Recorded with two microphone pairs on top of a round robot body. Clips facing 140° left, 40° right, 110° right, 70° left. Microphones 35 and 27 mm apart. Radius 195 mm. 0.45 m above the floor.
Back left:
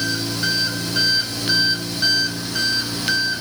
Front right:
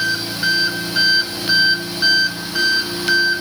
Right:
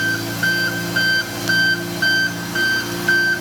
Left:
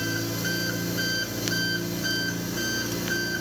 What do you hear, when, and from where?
0.0 s an engine running: 115° right, 3.5 m